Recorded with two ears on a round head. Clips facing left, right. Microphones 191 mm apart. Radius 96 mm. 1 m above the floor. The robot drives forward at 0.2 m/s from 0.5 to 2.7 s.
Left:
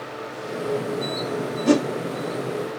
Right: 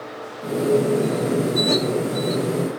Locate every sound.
1.7 s a whoosh: 55° left (ahead or behind), 1.3 m